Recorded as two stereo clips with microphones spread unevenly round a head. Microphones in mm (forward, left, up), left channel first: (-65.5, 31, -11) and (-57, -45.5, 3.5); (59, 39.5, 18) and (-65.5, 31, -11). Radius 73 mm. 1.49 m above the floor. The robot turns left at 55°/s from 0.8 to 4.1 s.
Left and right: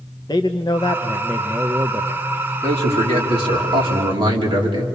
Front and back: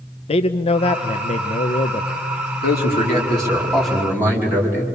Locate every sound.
0.3 s a man speaking: 30° left, 0.7 m; by 2.2 s 45° right, 0.7 m
2.6 s a man speaking: 20° right, 4 m; by 4.9 s 100° right, 4 m